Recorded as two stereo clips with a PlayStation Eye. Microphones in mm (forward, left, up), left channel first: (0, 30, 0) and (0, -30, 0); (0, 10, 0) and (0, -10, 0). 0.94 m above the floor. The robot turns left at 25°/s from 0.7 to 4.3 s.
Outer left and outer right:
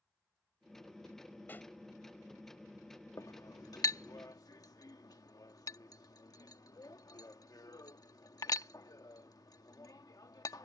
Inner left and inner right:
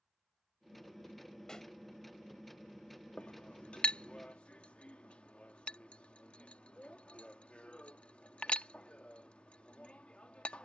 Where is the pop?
35° left (ahead or behind); by 1.7 s 25° left (ahead or behind).